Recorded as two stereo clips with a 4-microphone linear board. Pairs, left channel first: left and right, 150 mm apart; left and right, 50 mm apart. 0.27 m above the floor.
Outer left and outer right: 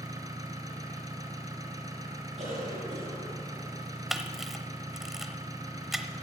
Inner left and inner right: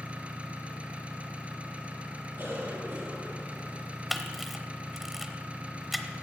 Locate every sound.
0.0 s an engine running: 25° right (ahead or behind), 1.3 m
2.4 s a cough: 60° right (ahead or behind), 5.5 m
4.1 s a camera shutter: centre (ahead or behind), 0.8 m